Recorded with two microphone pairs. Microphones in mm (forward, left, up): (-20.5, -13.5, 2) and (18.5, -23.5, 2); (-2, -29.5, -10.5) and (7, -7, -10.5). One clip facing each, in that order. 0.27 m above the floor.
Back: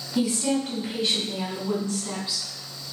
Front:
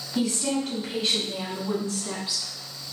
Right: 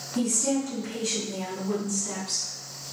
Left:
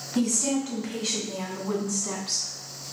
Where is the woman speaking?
85° left, 1.7 m; by 2.8 s 55° left, 2.5 m.